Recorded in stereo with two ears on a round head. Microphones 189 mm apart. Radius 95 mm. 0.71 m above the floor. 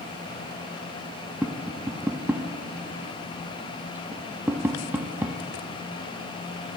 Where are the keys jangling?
I don't hear keys jangling.